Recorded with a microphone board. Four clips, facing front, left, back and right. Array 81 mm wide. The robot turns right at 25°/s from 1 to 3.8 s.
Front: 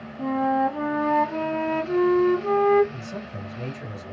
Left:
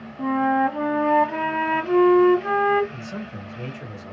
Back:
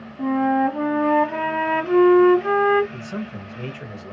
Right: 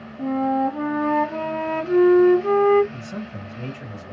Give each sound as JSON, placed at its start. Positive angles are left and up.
{"t": 0.2, "sound": "a flute", "azimuth_deg": 120, "distance_m": 0.9}
{"t": 2.9, "sound": "a man speaking", "azimuth_deg": 160, "distance_m": 2.0}